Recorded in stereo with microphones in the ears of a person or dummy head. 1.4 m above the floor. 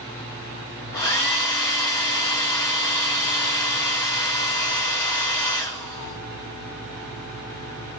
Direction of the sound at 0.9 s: 15° left (ahead or behind).